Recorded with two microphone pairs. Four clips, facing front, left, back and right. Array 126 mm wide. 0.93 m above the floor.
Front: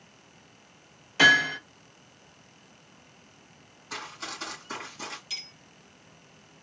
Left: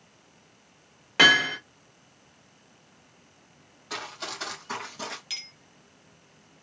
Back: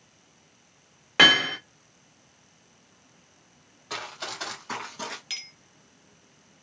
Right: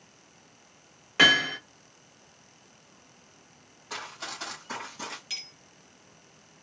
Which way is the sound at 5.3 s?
165° left.